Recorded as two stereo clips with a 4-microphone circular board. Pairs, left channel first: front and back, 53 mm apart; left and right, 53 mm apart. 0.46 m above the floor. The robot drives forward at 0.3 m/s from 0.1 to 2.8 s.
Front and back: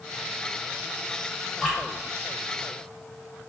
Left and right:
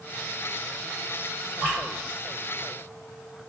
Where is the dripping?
110° right, 1.5 m.